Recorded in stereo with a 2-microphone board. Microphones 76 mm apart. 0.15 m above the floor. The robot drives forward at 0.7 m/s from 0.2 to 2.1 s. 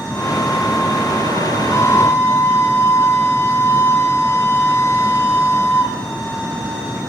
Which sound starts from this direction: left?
A flute, at 1.7 s.